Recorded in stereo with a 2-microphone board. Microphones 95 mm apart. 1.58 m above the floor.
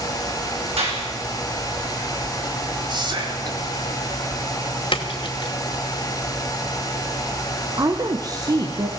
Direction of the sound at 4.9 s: 65° left (ahead or behind).